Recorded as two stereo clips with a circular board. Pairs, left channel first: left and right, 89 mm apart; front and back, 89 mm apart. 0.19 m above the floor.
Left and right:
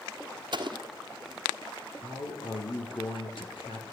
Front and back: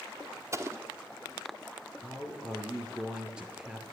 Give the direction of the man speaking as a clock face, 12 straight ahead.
9 o'clock.